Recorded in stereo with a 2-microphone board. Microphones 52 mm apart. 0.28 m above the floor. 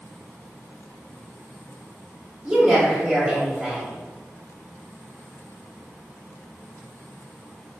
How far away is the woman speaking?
About 1.2 m.